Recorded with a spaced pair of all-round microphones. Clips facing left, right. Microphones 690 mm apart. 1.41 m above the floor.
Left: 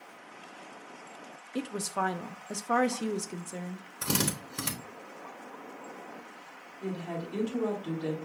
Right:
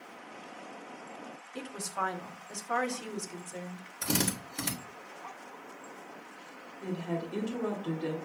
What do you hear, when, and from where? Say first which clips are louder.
1.6 s a woman speaking: left 7 dB; 65° left (ahead or behind), 0.7 m
4.0 s a drill: even; 40° left (ahead or behind), 1.1 m
6.8 s a woman speaking: right 1 dB; 5° left (ahead or behind), 1.5 m